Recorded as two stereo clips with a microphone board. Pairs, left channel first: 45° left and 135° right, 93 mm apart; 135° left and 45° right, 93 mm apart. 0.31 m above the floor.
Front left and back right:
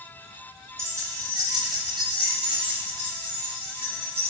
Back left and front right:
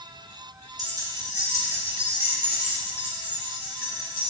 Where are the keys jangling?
80° right, 1.1 m; by 4.3 s 125° right, 2.5 m.